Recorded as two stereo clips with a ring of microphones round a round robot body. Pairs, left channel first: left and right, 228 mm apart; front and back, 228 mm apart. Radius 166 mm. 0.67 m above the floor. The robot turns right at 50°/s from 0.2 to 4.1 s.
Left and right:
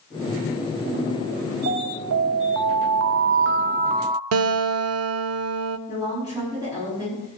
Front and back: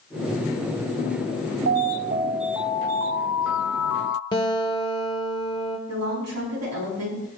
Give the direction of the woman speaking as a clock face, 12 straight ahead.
6 o'clock.